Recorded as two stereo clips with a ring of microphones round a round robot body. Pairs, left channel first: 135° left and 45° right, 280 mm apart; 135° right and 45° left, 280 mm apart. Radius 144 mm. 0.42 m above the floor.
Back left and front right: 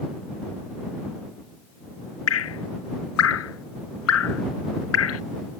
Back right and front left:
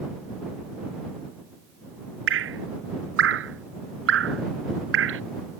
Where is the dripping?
95° left.